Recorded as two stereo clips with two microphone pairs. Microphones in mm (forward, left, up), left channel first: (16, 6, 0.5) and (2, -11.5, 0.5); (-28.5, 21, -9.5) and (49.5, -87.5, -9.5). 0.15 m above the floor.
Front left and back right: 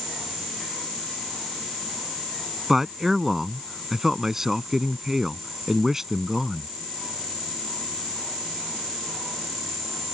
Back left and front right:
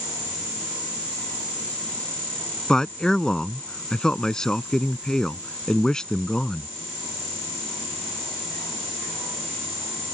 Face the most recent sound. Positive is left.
turn(degrees=-155)